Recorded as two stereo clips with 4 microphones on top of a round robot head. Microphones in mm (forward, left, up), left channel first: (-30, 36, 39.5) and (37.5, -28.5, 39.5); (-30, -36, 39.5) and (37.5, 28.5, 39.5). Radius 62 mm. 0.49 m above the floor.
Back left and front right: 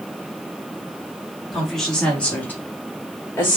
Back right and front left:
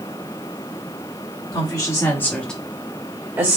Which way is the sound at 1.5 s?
135° right.